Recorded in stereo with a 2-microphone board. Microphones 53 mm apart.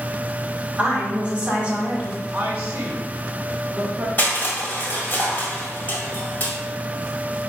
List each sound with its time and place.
0.8 s a woman speaking: 25° right (ahead or behind), 1.2 m
2.3 s a woman speaking: 30° right (ahead or behind), 1.0 m
4.2 s crushing: 35° left (ahead or behind), 1.5 m